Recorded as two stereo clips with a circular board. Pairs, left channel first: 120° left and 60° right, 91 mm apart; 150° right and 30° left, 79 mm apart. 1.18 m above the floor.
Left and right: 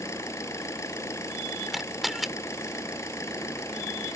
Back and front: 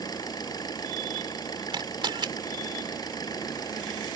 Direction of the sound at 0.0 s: 175° left.